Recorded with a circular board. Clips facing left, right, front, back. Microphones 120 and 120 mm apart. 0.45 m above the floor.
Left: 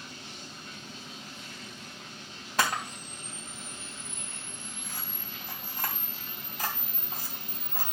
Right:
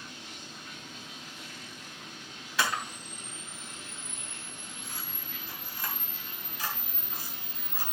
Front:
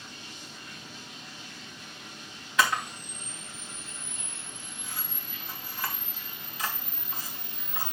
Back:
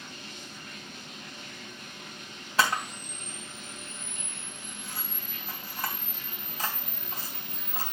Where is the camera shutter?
130° left, 3.5 m.